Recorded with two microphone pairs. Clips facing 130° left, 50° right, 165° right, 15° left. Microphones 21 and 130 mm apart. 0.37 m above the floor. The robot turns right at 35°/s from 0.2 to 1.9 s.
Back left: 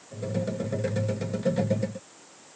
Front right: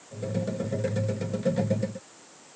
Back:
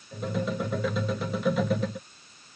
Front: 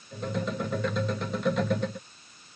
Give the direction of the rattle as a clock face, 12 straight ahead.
I don't hear a rattle.